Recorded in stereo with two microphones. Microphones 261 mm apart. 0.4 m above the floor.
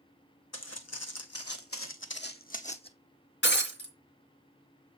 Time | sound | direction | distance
0.5 | footsteps | 75° left (ahead or behind) | 1.3 m
3.4 | breaking glass | 45° left (ahead or behind) | 2 m